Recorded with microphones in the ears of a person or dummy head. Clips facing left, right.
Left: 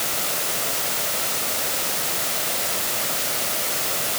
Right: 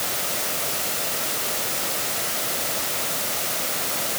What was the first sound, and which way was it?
Only background noise.